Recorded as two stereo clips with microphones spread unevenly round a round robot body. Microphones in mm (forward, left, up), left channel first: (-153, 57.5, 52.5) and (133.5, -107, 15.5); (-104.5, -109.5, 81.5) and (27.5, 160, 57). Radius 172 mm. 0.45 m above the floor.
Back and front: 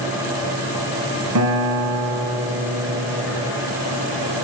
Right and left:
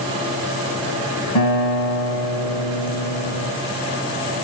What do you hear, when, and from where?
1.4 s a guitar: 75° right, 1.8 m